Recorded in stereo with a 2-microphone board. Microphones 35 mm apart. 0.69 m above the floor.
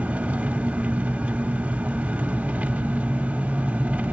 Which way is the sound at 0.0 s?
55° right (ahead or behind).